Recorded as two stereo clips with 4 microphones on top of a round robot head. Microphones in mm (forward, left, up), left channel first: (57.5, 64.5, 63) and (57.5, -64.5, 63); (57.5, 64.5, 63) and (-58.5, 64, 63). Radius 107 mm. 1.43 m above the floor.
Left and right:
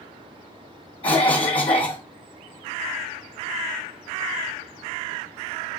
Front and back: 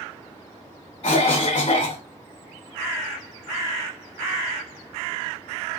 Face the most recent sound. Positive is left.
turn(degrees=40)